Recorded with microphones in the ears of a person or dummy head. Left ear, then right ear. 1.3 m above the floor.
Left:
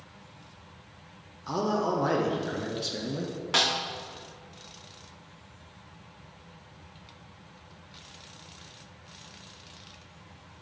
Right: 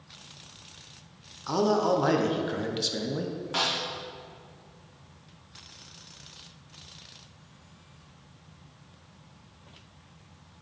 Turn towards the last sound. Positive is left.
turn(degrees=45)  # may be behind; listen again after turning